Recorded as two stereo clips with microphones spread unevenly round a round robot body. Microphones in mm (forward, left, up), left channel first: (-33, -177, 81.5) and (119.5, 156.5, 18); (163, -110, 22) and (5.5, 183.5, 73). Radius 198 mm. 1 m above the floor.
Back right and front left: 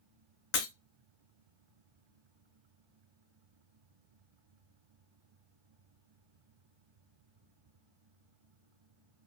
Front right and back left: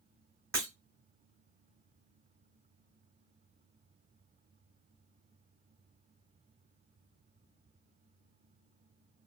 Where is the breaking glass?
165° right, 0.9 m.